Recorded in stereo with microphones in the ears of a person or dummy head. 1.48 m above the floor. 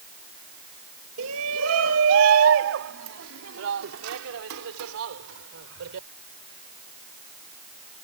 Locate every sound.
1.2 s a shout: 85° right